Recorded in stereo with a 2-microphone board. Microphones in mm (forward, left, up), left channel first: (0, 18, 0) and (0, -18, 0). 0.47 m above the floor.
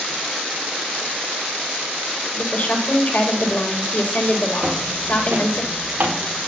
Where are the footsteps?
55° right (ahead or behind), 5.5 m; by 6.5 s 65° right (ahead or behind), 4.5 m.